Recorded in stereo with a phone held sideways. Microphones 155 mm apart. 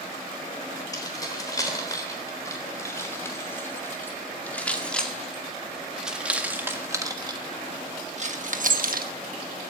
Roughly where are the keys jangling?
Left.